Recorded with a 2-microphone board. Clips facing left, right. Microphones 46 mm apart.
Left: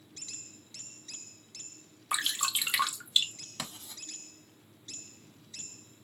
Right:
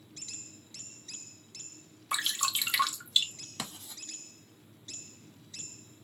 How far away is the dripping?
About 1.0 m.